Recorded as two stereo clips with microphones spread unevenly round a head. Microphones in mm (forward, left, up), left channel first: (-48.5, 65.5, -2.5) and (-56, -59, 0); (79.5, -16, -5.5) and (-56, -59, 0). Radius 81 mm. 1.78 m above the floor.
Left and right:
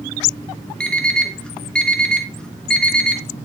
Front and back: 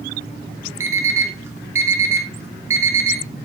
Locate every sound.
0.8 s an alarm clock: 160° left, 1.2 m